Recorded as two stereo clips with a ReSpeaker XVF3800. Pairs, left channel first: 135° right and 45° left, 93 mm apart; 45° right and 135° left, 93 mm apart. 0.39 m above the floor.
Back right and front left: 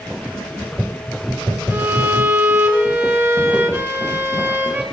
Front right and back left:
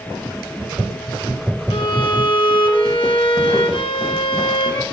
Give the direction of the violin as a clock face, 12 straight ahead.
1 o'clock.